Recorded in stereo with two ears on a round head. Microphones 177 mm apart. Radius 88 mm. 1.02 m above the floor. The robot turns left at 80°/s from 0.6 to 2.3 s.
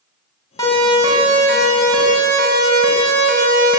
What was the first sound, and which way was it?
A siren, 20° left (ahead or behind).